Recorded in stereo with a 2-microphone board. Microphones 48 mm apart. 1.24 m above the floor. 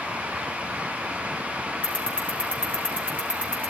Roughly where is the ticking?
Left.